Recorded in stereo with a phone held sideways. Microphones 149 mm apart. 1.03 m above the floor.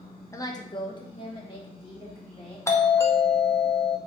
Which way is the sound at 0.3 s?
20° left (ahead or behind).